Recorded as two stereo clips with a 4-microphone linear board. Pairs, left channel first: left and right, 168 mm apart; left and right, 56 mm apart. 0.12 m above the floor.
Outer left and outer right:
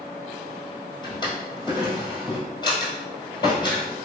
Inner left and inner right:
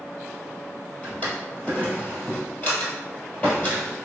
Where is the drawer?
25° left (ahead or behind), 1.6 m.